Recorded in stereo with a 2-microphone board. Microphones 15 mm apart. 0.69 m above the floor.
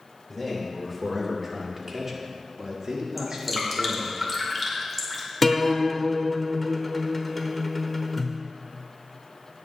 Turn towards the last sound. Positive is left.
turn(degrees=10)  # may be behind; listen again after turning